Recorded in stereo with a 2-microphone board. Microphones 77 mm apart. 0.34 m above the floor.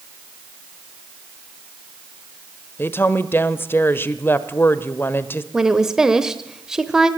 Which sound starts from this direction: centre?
A woman speaking, at 5.5 s.